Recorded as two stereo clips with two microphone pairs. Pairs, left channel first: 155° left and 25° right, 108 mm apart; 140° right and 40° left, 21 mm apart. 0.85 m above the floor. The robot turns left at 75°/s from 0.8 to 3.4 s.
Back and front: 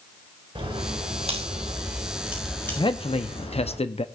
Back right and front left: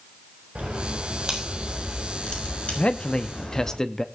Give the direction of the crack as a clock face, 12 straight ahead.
12 o'clock.